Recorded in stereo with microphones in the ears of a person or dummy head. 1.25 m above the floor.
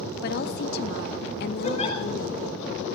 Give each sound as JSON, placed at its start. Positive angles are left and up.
{"t": 0.2, "sound": "a woman speaking", "side_deg": 55, "distance_m": 1.1}
{"t": 1.6, "sound": "a giggle", "side_deg": 40, "distance_m": 6.0}